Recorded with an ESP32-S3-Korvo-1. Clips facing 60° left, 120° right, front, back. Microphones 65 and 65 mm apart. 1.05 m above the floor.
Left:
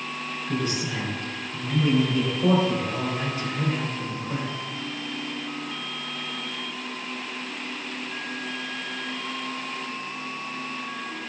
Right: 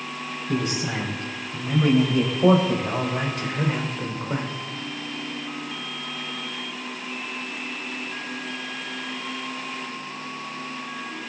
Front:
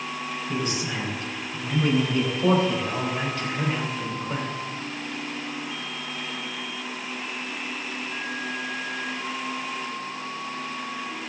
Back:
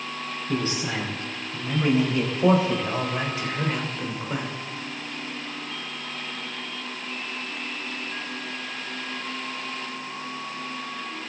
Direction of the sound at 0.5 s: 120° right.